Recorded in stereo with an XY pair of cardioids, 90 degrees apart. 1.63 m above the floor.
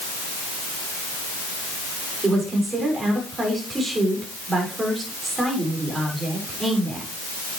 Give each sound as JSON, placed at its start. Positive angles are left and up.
{"t": 2.2, "sound": "a woman speaking", "azimuth_deg": -30, "distance_m": 6.5}